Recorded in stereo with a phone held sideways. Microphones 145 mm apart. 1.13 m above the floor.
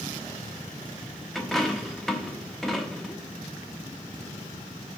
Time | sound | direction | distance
1.4 | a dropped coin | 5° left (ahead or behind) | 1.0 m